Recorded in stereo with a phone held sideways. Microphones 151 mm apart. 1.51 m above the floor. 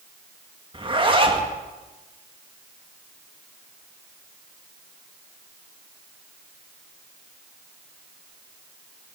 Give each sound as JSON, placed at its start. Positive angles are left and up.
{"t": 0.7, "sound": "a zipper", "side_deg": -35, "distance_m": 1.3}